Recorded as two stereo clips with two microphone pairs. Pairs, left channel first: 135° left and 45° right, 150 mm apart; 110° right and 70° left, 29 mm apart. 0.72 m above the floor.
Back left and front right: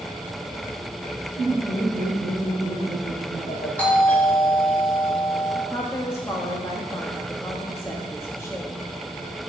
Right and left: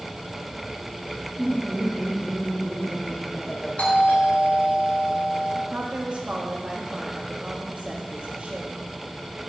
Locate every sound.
1.4 s laughter: 160° left, 2.5 m
3.8 s a doorbell: 145° right, 4 m
5.7 s a woman speaking: 75° left, 1.0 m